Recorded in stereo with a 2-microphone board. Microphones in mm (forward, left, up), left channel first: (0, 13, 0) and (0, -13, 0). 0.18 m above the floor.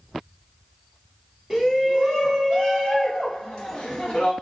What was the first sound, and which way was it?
A shout, 15° right (ahead or behind).